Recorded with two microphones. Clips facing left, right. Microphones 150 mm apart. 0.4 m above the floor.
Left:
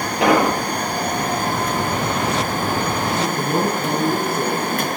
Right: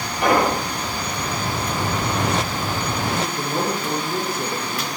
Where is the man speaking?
70° left (ahead or behind), 4.5 m.